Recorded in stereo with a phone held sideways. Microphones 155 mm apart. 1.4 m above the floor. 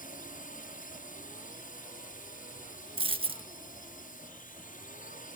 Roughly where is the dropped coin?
Right.